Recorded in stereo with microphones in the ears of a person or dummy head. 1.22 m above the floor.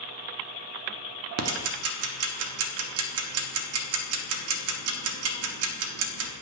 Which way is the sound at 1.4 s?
70° right (ahead or behind).